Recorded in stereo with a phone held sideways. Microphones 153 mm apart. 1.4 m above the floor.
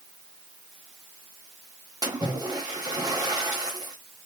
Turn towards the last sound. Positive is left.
turn(degrees=-25)  # may be behind; listen again after turning